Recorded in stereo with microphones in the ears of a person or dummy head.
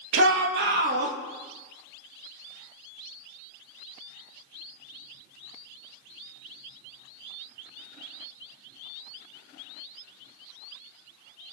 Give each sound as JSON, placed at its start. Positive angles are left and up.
{"t": 0.1, "sound": "a shout", "side_deg": -70, "distance_m": 1.7}